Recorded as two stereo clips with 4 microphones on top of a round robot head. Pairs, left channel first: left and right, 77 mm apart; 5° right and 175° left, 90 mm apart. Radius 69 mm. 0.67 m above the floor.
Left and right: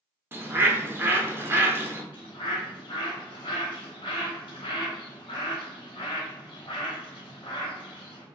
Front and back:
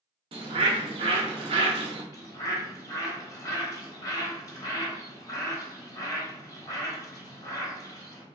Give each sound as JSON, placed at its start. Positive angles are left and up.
{"t": 0.3, "sound": "a bird", "azimuth_deg": -155, "distance_m": 0.6}
{"t": 2.1, "sound": "a bird", "azimuth_deg": 45, "distance_m": 0.8}